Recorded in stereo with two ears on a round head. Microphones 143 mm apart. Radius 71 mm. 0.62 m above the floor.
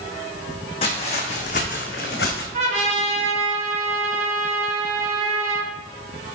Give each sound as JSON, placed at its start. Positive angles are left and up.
{"t": 0.8, "sound": "footsteps", "side_deg": 35, "distance_m": 2.0}
{"t": 2.5, "sound": "a trumpet", "side_deg": -45, "distance_m": 1.5}